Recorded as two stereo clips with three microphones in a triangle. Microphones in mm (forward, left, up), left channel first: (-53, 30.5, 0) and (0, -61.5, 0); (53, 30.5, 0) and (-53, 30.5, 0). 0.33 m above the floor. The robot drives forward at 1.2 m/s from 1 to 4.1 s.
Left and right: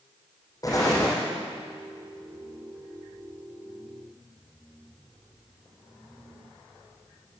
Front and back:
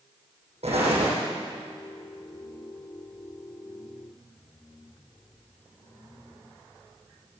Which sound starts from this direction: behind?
An explosion, at 0.6 s.